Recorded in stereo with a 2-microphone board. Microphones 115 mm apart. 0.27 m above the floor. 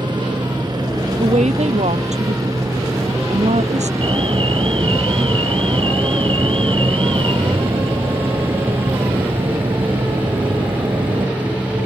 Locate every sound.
0.0 s a helicopter: 40° right (ahead or behind); by 11.8 s 10° right (ahead or behind)
1.2 s a woman speaking: 80° right
4.0 s an alarm: 50° right (ahead or behind)